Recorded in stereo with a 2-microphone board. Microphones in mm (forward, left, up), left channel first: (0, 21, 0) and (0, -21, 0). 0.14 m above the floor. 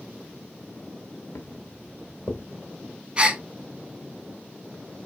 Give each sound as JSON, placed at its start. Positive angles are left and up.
{"t": 1.4, "sound": "footsteps", "side_deg": 75, "distance_m": 0.7}
{"t": 3.2, "sound": "a gasp", "side_deg": -25, "distance_m": 0.7}